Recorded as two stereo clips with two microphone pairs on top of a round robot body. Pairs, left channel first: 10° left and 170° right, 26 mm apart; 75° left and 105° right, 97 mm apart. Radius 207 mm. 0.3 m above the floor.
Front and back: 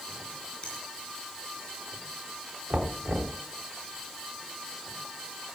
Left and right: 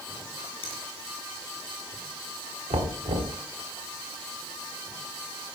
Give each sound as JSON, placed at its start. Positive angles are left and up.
{"t": 0.6, "sound": "a finger snap", "azimuth_deg": 45, "distance_m": 5.5}
{"t": 2.7, "sound": "knocking", "azimuth_deg": -115, "distance_m": 1.5}